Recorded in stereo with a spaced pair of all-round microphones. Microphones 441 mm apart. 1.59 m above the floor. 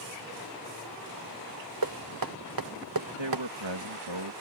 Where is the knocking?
50° right (ahead or behind).